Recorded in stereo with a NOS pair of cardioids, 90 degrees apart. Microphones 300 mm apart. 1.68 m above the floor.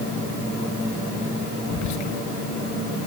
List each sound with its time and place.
1.7 s whispering: 70° left, 1.6 m